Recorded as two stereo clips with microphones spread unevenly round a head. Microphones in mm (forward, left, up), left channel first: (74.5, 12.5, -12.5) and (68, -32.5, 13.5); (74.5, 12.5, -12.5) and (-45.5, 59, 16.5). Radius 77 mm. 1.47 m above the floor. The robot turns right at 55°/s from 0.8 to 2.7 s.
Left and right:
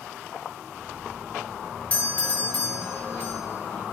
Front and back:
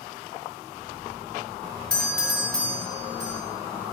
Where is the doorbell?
55° left, 2 m; by 3.4 s 100° left, 2 m.